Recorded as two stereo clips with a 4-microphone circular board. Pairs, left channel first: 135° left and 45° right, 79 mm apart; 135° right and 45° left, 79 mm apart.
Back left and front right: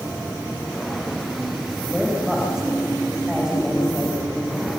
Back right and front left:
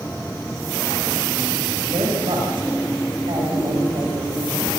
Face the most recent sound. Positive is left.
turn(degrees=40)